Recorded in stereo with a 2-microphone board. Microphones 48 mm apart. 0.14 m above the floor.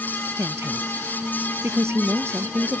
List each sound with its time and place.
0.4 s a woman speaking: 60° right (ahead or behind)